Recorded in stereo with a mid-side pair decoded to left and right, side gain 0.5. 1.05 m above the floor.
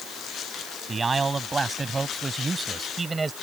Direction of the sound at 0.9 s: 30° right.